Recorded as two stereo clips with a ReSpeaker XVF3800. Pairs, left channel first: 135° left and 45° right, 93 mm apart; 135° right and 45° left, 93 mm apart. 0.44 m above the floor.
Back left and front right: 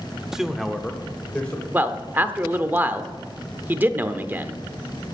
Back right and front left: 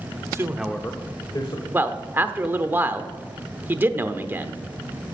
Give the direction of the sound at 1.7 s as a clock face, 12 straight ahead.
12 o'clock.